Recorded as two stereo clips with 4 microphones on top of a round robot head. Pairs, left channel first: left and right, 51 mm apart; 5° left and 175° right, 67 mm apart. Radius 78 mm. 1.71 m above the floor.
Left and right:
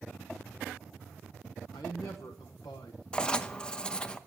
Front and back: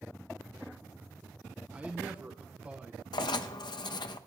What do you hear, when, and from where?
1.7 s a man speaking: 115° left, 0.9 m
3.1 s writing: 15° left, 0.7 m